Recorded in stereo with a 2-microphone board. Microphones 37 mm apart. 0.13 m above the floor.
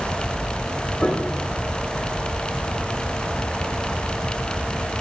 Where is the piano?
20° left (ahead or behind), 4.5 m.